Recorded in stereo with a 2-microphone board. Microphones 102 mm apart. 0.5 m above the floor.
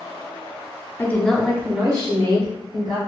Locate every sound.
1.0 s a woman speaking: 20° left (ahead or behind), 0.8 m; by 3.0 s 55° right (ahead or behind), 1.4 m